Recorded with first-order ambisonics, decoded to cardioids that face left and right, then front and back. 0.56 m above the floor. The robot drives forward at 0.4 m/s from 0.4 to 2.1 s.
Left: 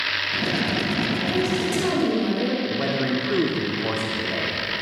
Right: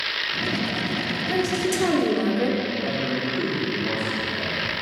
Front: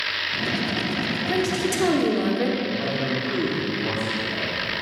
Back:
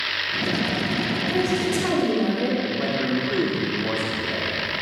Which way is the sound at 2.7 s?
100° left.